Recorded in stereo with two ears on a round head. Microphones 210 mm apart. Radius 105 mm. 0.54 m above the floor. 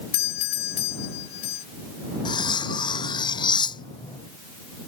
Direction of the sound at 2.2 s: 20° left (ahead or behind).